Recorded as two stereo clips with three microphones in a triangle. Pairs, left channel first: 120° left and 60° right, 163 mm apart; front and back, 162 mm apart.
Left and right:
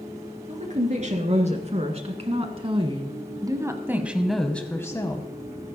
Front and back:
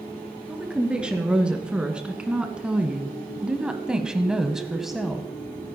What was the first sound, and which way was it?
A woman speaking, 95° right.